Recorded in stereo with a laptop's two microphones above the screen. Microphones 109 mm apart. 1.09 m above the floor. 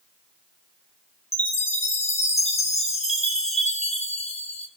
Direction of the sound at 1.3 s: 80° left.